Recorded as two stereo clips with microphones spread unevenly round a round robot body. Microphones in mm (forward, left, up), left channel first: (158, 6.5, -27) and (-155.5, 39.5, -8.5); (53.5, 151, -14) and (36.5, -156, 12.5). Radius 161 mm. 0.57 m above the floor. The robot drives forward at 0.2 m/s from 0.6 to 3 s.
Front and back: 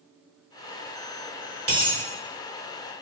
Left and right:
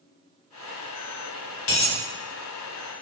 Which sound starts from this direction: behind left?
A dropped coin, at 1.7 s.